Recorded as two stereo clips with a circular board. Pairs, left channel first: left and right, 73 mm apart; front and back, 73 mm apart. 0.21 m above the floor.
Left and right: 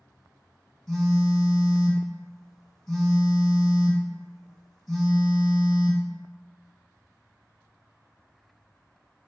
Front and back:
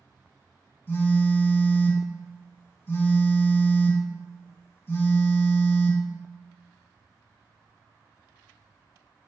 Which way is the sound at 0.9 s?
10° left.